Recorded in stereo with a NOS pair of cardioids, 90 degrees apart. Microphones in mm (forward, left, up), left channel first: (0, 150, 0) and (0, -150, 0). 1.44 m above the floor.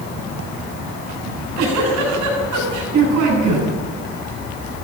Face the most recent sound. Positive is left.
turn(degrees=-70)